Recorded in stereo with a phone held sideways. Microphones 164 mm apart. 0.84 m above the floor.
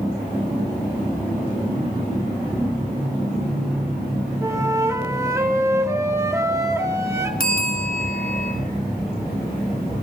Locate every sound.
4.4 s a flute: 20° right (ahead or behind), 1.3 m
7.4 s a bell: 65° left (ahead or behind), 2.5 m